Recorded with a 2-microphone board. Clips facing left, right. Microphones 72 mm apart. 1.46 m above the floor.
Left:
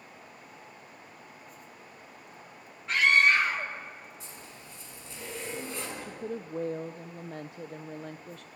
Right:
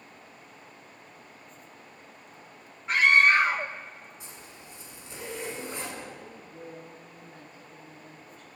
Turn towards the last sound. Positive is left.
turn(degrees=80)